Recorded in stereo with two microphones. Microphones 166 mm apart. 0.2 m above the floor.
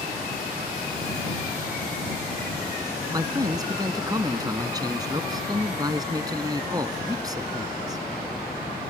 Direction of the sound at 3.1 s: 25° right (ahead or behind).